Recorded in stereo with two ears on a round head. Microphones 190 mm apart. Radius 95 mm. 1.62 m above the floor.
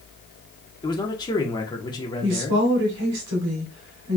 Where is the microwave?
I don't hear a microwave.